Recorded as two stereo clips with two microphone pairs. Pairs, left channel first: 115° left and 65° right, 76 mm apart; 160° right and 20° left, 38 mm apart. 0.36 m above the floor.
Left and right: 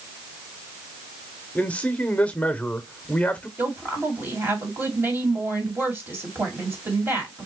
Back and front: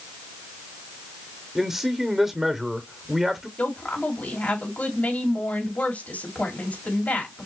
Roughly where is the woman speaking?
Behind right.